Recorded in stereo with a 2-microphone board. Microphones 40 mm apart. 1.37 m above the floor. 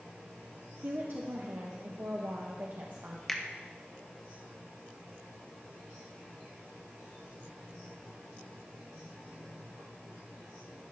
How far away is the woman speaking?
About 0.9 m.